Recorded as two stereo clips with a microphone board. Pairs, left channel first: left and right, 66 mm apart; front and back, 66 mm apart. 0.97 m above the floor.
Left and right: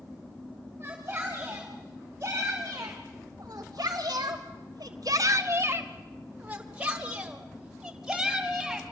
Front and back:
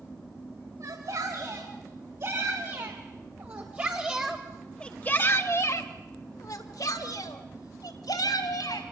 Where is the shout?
155° right, 5 m; by 8.8 s 5° right, 5 m.